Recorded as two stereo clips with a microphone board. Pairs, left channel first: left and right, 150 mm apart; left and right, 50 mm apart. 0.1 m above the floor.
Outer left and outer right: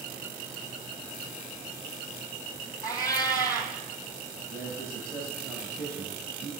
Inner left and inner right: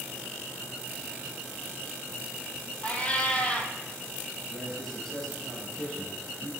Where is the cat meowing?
25° left (ahead or behind), 0.5 m.